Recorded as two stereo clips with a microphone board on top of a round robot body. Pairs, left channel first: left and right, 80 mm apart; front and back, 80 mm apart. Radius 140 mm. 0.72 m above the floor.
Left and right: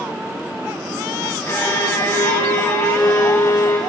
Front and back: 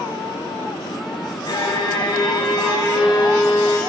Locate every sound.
1.5 s a violin: 30° left, 4 m